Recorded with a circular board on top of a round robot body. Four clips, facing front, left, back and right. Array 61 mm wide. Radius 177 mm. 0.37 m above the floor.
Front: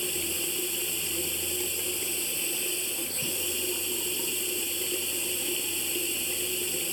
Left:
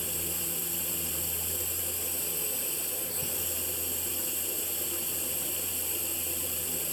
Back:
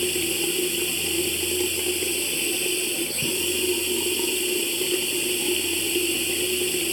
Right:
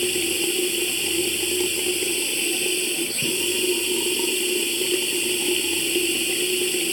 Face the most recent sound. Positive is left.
turn(degrees=-115)